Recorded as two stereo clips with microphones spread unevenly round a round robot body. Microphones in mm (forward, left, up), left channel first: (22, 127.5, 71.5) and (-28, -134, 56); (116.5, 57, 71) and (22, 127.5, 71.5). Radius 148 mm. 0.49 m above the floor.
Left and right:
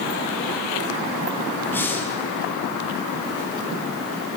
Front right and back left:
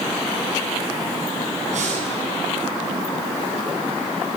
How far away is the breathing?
About 6.5 m.